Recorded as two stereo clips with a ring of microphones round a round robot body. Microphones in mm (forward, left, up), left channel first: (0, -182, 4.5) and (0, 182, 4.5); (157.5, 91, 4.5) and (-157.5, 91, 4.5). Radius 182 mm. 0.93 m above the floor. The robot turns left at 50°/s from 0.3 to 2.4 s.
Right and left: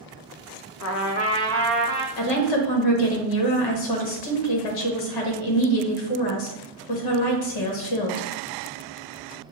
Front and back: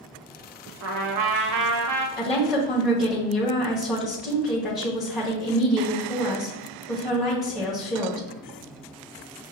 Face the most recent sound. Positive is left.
turn(degrees=-90)